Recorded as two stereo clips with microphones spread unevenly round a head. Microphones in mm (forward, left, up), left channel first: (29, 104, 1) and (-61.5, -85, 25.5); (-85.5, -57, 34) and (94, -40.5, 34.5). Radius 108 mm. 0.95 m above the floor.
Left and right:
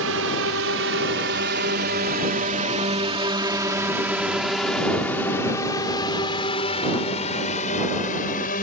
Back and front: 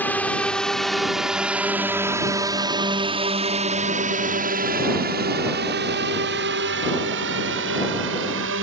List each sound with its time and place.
0.0 s a drone: 95° right; by 8.6 s 10° left